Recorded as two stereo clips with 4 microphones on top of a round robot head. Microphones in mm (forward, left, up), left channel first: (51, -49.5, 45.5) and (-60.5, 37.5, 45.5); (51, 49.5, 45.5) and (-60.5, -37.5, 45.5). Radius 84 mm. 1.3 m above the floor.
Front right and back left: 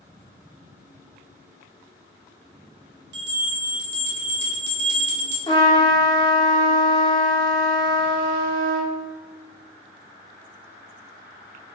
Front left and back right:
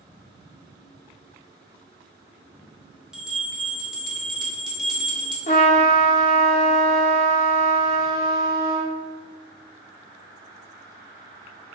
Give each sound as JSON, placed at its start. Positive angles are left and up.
{"t": 3.1, "sound": "a bell", "azimuth_deg": 130, "distance_m": 0.7}
{"t": 5.5, "sound": "a trumpet", "azimuth_deg": 15, "distance_m": 0.6}